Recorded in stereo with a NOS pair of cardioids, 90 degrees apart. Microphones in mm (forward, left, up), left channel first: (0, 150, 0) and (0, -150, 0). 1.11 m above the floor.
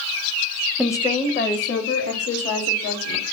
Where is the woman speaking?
Straight ahead, 0.7 m; by 3.2 s 55° left, 3 m.